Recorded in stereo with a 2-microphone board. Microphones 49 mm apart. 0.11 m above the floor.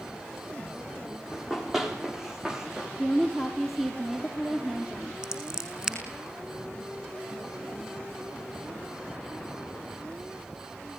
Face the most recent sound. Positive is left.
turn(degrees=-15)  # may be behind; listen again after turning